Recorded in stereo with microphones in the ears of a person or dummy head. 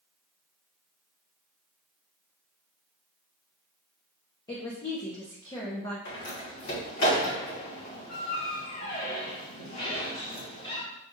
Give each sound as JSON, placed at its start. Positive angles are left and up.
{"t": 4.5, "sound": "a woman speaking", "side_deg": 20, "distance_m": 0.7}
{"t": 6.0, "sound": "a door slam", "side_deg": 50, "distance_m": 1.5}